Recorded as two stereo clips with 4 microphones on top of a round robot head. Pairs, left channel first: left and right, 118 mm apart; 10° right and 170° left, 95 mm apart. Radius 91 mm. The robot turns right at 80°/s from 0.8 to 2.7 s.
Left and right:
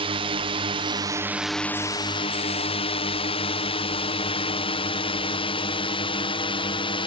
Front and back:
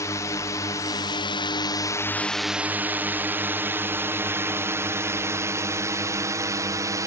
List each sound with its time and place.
0.0 s a drone: 65° right; by 7.1 s 120° left